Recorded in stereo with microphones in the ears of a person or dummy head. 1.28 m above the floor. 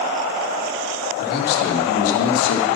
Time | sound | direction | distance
1.2 | a man speaking | 50° left (ahead or behind) | 2.5 m